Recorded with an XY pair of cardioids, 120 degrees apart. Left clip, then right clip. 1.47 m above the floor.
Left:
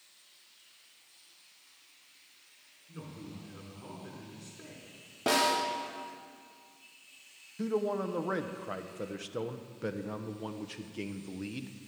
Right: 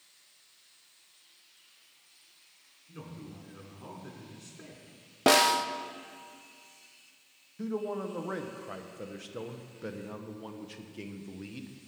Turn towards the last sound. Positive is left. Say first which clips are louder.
# left 3 dB
turn(degrees=15)